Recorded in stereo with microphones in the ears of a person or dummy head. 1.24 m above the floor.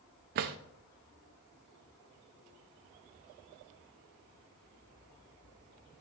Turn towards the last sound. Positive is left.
turn(degrees=-45)  # may be behind; listen again after turning